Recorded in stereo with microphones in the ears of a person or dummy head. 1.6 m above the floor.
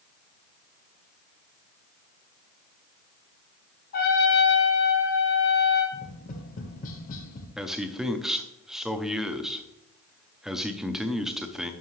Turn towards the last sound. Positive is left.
turn(degrees=-5)  # may be behind; listen again after turning